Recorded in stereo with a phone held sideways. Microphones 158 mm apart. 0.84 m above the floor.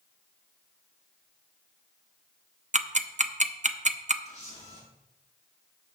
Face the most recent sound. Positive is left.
turn(degrees=45)  # may be behind; listen again after turning